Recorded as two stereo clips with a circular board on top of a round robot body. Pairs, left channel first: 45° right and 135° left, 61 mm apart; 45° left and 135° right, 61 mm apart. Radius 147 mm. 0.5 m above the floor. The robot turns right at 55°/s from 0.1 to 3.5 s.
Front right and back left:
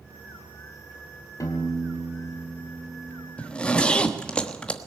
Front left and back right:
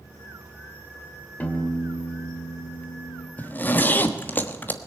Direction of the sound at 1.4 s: 20° right.